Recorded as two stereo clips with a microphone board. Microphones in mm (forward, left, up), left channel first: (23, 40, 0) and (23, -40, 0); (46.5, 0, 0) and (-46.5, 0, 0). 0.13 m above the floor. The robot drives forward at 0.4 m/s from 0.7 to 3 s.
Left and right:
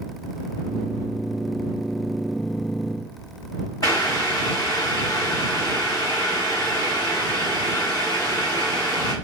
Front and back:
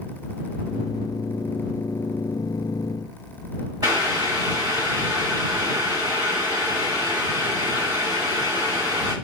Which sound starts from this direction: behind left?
Boiling, at 3.8 s.